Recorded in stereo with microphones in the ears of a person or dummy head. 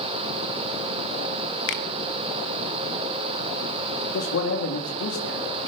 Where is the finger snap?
65° left (ahead or behind), 1.3 m.